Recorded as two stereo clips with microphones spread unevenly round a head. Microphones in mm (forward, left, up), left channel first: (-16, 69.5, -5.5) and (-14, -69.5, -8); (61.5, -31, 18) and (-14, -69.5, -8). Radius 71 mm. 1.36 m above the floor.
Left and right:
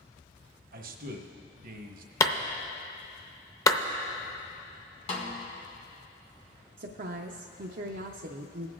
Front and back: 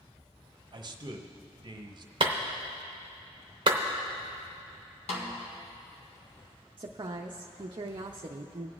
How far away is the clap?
About 0.6 m.